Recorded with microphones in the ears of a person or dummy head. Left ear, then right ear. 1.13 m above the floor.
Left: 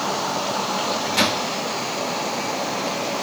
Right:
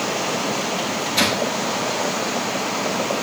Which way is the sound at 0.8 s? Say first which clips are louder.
Even; 20° left (ahead or behind).